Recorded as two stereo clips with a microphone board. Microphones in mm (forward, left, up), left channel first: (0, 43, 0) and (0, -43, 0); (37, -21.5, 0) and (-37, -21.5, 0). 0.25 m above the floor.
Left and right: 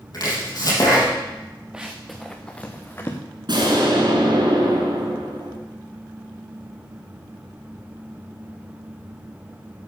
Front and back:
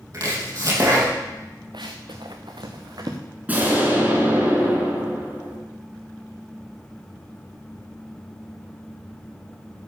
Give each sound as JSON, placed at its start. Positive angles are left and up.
{"t": 0.1, "sound": "chopping", "azimuth_deg": 135, "distance_m": 4.5}
{"t": 1.7, "sound": "running footsteps", "azimuth_deg": -170, "distance_m": 1.9}
{"t": 3.5, "sound": "an explosion", "azimuth_deg": -110, "distance_m": 3.5}